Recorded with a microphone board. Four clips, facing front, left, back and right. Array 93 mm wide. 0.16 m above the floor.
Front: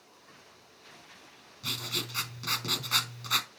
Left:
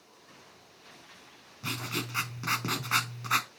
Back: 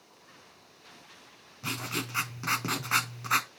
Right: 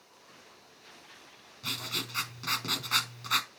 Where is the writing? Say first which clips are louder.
Left 4 dB, back 4 dB; 150° left, 0.6 m.